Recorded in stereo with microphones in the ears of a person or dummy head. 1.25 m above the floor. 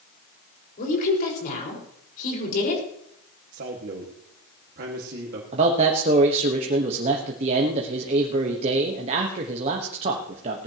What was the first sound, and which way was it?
A woman speaking, 50° left (ahead or behind).